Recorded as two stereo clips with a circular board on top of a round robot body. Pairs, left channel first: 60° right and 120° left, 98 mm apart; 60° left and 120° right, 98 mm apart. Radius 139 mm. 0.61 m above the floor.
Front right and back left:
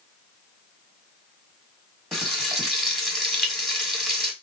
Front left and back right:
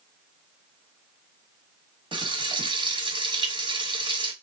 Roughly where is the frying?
Behind right.